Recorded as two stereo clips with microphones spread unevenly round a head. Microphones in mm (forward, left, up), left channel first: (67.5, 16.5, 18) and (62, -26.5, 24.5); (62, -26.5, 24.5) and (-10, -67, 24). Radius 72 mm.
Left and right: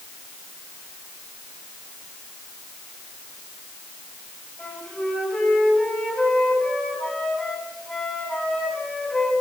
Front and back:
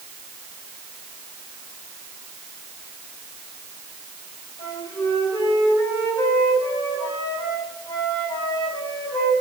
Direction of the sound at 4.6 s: 5° right.